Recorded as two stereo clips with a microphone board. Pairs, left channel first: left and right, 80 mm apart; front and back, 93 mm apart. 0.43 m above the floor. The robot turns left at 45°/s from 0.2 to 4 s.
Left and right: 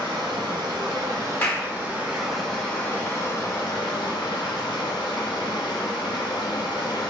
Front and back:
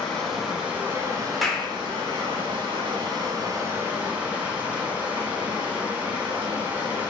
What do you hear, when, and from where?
0.0 s running water: 80° right, 0.7 m; by 7.1 s 105° left, 0.7 m
1.4 s a clap: 90° left, 0.6 m; by 1.7 s 75° left, 0.6 m